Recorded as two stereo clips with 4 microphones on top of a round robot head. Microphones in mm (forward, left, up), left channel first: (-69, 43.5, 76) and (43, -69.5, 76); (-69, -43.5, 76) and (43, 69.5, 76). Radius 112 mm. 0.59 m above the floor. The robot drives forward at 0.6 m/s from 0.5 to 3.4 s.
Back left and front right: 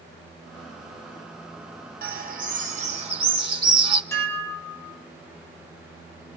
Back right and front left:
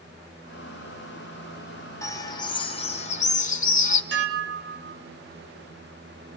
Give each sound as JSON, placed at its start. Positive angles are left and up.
{"t": 2.0, "sound": "a bird", "azimuth_deg": -65, "distance_m": 1.5}
{"t": 4.1, "sound": "dishes clattering", "azimuth_deg": 60, "distance_m": 2.5}